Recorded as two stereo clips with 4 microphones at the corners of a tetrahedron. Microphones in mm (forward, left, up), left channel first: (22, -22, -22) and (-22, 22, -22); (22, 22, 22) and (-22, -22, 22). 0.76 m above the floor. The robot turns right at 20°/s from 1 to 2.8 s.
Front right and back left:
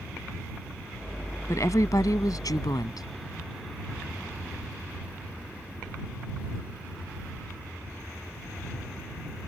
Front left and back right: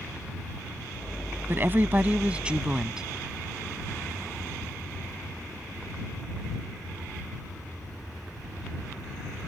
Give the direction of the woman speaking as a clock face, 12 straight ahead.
3 o'clock.